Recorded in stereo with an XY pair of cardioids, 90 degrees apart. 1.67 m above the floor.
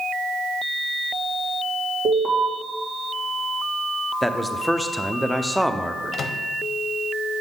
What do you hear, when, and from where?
2.0 s an alarm: 70° right, 2.5 m
4.2 s a man speaking: straight ahead, 0.8 m
6.1 s a microwave: 60° left, 0.7 m